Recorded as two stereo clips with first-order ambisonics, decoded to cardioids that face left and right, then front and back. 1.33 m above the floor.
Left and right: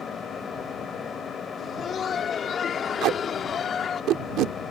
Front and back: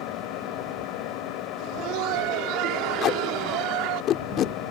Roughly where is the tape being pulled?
Ahead right.